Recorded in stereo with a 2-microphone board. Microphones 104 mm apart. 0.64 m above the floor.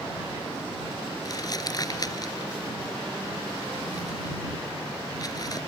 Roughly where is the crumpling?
Left.